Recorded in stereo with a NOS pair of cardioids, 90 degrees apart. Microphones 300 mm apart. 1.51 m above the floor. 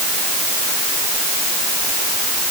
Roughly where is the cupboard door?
I don't hear a cupboard door.